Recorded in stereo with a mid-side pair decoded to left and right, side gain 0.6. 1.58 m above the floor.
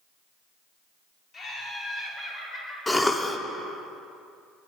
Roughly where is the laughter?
Ahead left.